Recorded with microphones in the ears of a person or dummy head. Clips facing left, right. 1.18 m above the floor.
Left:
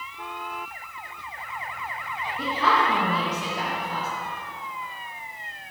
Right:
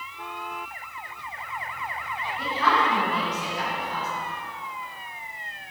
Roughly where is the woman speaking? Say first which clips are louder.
Left 1 dB; left.